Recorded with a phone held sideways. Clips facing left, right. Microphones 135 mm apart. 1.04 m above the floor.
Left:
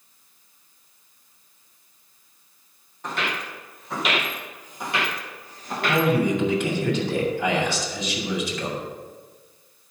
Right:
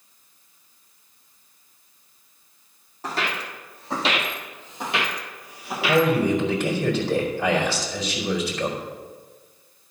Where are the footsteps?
35° right (ahead or behind), 2.5 m; by 6.0 s centre (ahead or behind), 1.3 m.